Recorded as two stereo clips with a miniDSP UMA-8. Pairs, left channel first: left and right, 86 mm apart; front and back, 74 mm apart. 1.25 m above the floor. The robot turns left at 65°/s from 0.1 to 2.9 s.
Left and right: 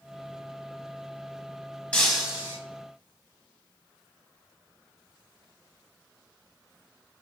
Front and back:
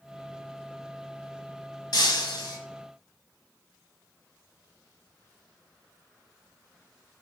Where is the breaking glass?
15° left, 1.1 m; by 2.6 s 30° right, 1.1 m.